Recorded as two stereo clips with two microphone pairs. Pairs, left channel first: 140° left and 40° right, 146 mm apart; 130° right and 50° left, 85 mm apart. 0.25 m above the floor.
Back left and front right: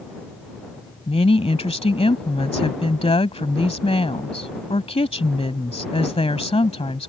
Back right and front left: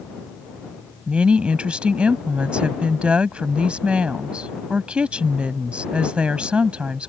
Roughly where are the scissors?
I don't hear scissors.